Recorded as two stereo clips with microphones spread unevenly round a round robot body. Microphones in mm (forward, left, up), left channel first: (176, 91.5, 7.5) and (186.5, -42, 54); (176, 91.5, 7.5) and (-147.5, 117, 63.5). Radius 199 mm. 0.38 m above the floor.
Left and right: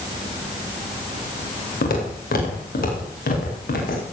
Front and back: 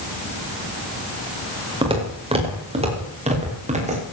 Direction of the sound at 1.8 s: 100° left.